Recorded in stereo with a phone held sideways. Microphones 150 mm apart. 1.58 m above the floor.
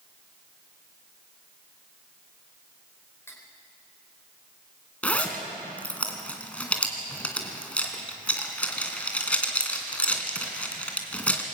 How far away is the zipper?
About 2.5 m.